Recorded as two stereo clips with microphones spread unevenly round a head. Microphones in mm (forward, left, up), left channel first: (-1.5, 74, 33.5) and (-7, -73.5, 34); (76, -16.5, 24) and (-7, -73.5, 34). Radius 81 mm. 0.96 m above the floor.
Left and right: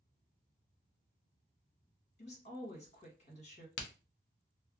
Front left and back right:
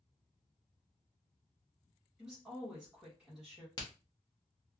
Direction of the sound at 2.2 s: 125° left.